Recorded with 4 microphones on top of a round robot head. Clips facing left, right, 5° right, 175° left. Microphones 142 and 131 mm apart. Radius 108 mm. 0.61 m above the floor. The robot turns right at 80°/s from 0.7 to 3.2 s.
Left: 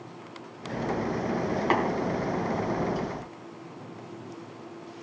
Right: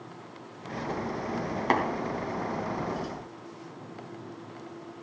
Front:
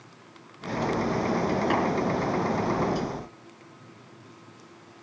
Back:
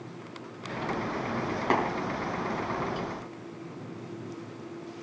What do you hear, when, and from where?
1.7 s tapping: 130° right, 3.5 m; by 1.8 s 120° right, 3.5 m